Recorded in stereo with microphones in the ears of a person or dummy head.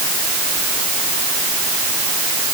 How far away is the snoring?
No snoring in this recording.